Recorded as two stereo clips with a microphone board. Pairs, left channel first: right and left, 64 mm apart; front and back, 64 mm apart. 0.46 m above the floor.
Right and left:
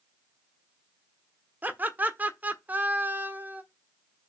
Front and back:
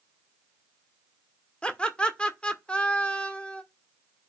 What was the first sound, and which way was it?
Laughter, 60° left.